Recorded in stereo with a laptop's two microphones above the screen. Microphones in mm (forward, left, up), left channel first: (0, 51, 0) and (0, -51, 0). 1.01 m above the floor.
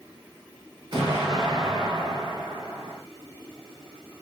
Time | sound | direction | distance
0.9 | an explosion | 45° right (ahead or behind) | 1.7 m